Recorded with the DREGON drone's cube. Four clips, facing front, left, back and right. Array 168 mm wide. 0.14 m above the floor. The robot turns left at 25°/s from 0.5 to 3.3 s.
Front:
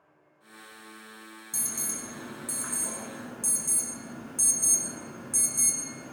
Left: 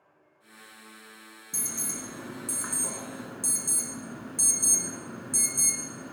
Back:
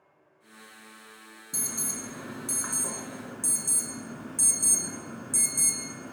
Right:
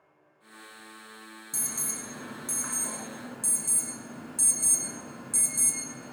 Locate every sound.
1.5 s an alarm: 165° left, 1.2 m; by 6.1 s 125° left, 1.2 m